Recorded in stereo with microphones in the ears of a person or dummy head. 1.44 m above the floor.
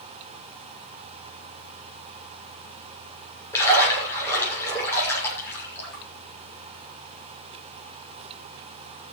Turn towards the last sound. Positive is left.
turn(degrees=10)  # may be behind; listen again after turning